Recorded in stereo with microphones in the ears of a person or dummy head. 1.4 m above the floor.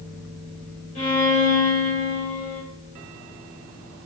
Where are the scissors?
I don't hear scissors.